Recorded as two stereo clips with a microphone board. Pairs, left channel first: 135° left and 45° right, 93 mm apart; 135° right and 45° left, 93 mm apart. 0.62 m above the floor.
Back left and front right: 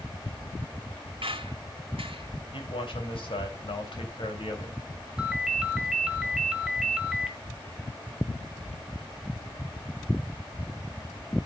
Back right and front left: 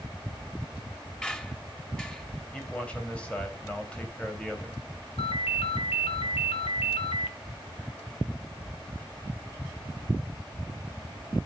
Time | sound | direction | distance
1.2 | a squeak | 55° right | 1.4 m
2.5 | a man speaking | 145° left | 3.5 m
5.2 | a ringtone | 130° right | 1.7 m